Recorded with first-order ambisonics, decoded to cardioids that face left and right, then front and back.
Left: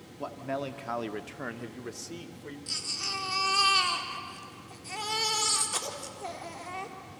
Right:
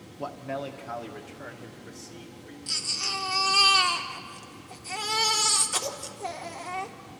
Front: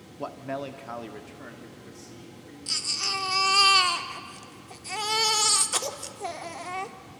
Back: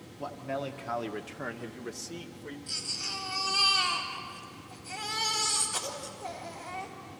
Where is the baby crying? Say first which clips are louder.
Right 4 dB, front 7 dB; 15° right, 1.0 m.